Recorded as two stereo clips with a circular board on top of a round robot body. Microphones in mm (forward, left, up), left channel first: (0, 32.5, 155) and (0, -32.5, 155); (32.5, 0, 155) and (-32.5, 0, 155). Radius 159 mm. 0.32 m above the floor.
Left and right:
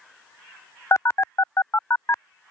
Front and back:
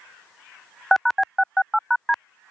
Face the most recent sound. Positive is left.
turn(degrees=85)